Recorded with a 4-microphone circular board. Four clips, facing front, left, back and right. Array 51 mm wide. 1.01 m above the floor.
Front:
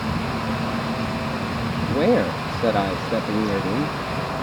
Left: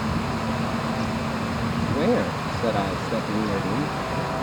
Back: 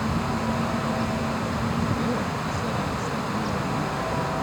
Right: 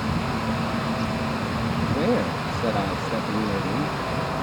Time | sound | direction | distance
1.8 | a man speaking | 5° left | ?